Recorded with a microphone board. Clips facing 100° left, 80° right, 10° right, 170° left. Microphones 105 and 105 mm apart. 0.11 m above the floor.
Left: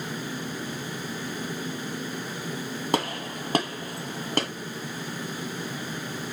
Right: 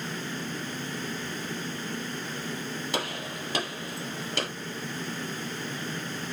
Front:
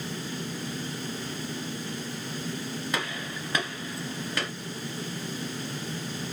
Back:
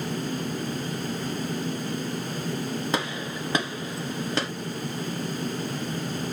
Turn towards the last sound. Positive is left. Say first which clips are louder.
# left 8 dB, back 4 dB
turn(degrees=120)